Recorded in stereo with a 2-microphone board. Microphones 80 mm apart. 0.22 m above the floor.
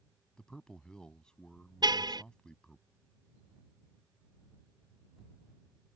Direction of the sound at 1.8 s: 65° right (ahead or behind).